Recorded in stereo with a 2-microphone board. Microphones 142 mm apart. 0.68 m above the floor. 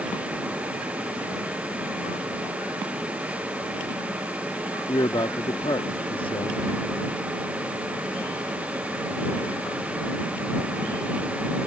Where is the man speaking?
40° left (ahead or behind).